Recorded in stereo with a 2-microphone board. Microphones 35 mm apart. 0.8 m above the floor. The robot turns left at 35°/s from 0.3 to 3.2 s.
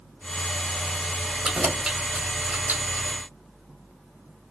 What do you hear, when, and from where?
1.4 s keys jangling: 10° right (ahead or behind), 1.4 m; by 3.1 s 65° right (ahead or behind), 1.4 m